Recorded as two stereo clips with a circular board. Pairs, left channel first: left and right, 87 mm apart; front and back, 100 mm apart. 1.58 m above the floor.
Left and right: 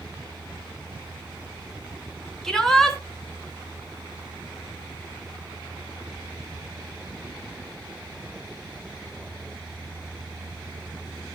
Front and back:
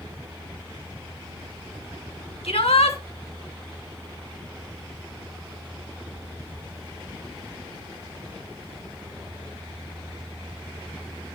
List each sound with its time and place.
2.4 s a shout: 5° left, 3 m